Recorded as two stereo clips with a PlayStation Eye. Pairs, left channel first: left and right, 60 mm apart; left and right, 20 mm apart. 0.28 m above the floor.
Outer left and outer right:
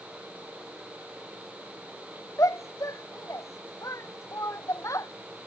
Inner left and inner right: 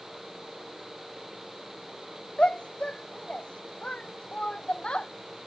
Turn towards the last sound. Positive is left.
turn(degrees=65)  # may be behind; listen again after turning